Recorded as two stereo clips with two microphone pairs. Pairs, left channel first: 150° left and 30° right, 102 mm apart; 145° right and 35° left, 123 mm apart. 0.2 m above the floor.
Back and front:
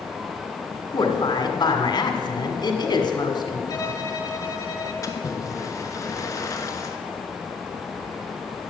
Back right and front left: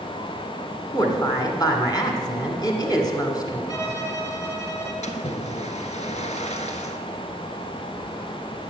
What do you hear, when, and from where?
0.9 s a woman speaking: 170° left, 1.9 m
3.7 s a violin: 170° left, 1.5 m
5.0 s a splash: 155° right, 1.1 m